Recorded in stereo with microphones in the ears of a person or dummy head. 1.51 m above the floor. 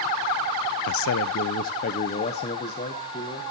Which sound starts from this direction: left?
A man speaking, at 0.9 s.